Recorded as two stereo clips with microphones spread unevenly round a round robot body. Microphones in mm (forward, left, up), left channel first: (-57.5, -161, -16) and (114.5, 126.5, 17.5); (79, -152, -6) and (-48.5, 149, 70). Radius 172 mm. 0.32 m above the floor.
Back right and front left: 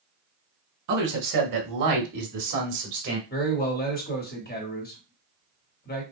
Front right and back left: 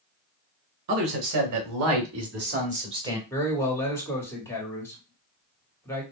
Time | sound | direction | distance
0.9 | a man speaking | 90° left | 2 m
3.3 | a man speaking | 115° right | 1.6 m